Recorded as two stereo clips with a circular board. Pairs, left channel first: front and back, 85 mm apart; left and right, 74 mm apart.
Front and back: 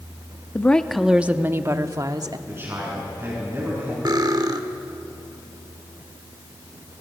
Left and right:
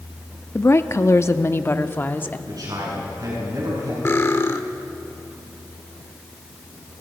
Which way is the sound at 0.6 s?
60° left.